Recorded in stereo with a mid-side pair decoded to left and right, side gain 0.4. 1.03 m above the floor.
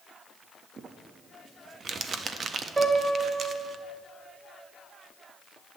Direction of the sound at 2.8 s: 35° right.